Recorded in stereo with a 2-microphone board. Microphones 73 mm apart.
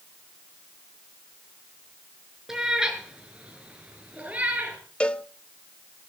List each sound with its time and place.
2.5 s a cat meowing: 5° right (ahead or behind), 3 m; by 4.8 s 15° right (ahead or behind), 4 m
5.0 s a cowbell: 10° left (ahead or behind), 0.6 m